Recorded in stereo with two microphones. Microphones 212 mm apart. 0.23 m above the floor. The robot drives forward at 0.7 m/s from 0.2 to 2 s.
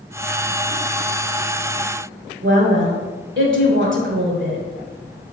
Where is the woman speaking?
65° right (ahead or behind), 3 m.